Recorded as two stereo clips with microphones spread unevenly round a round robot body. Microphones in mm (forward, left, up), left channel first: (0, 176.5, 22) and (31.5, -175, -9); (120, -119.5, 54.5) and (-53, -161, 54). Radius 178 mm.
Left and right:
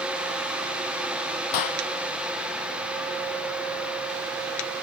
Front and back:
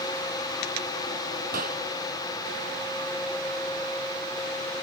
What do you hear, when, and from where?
1.5 s a clap: 130° left